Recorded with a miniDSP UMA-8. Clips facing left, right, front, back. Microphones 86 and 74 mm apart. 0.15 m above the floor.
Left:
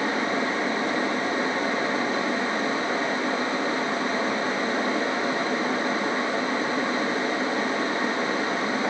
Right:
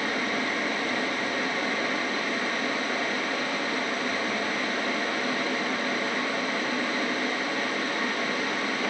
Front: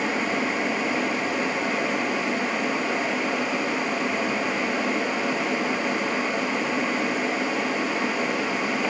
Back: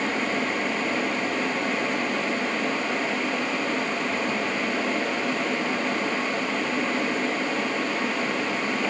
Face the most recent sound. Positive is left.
No sound to turn to.